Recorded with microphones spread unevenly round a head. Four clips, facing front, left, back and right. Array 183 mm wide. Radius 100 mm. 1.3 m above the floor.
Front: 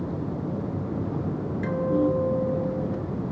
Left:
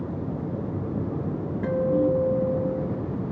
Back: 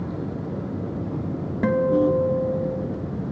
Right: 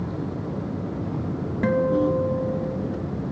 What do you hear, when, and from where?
1.6 s a guitar: 145° right, 2.5 m